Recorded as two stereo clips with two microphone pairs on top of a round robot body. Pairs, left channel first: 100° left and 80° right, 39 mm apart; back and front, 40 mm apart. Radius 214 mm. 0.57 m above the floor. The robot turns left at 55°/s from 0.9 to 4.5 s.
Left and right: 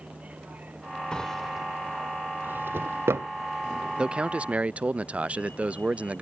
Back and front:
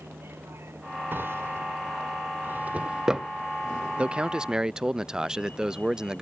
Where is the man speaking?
30° right; by 6.2 s 60° right.